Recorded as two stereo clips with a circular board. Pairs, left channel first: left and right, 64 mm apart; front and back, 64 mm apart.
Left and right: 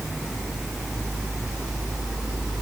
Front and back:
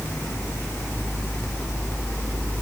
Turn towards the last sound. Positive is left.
No sound to turn to.